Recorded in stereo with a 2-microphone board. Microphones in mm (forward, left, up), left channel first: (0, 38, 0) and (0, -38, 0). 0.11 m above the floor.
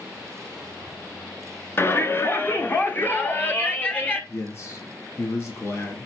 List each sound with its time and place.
1.8 s a shout: 30° left (ahead or behind), 1.2 m; by 4.2 s 20° left (ahead or behind), 2 m
4.3 s a man speaking: 35° left (ahead or behind), 1.6 m